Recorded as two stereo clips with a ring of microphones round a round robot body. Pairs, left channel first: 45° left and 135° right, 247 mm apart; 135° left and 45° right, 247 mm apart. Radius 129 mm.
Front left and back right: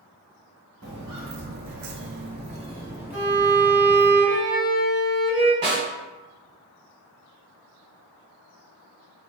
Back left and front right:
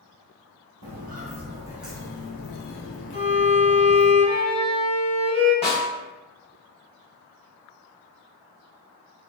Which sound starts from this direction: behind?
A snare drum, at 5.6 s.